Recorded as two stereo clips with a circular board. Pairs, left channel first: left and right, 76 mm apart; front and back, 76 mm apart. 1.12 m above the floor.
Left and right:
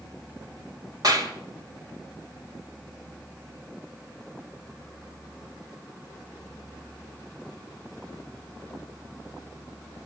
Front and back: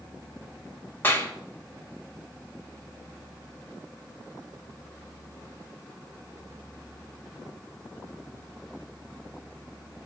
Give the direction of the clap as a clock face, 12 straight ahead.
2 o'clock.